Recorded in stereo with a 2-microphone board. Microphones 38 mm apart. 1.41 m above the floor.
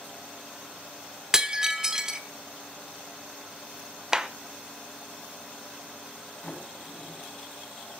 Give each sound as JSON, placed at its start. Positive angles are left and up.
{"t": 1.3, "sound": "breaking glass", "side_deg": -20, "distance_m": 1.1}
{"t": 4.1, "sound": "a clap", "side_deg": -15, "distance_m": 0.8}
{"t": 6.4, "sound": "a sliding door", "side_deg": 15, "distance_m": 6.0}